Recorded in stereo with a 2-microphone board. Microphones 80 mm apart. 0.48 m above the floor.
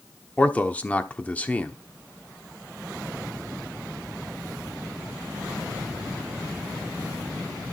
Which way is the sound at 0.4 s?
15° left (ahead or behind).